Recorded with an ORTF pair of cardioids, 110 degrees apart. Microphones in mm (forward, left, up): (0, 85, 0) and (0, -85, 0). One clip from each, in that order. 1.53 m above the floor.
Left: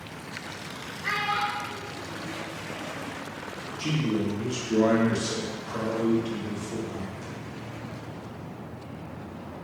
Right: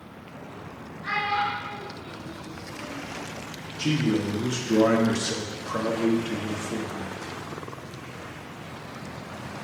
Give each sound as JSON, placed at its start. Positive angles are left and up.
{"t": 1.0, "sound": "a child speaking", "azimuth_deg": 40, "distance_m": 1.5}
{"t": 3.8, "sound": "a man speaking", "azimuth_deg": -25, "distance_m": 0.9}